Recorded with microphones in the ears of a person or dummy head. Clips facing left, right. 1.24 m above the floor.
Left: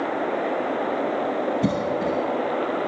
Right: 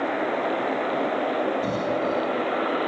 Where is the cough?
45° left (ahead or behind), 3 m.